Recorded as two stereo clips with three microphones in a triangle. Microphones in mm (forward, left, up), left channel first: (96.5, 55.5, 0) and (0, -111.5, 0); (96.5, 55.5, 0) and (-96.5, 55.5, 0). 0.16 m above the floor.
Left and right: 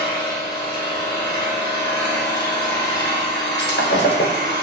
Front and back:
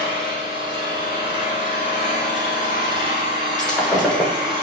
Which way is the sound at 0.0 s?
125° left.